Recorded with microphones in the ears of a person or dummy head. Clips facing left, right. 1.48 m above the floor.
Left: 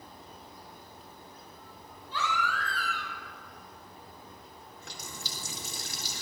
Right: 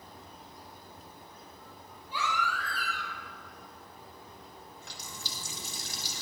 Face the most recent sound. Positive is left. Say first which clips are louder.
# left 4 dB
turn(degrees=55)  # may be behind; listen again after turning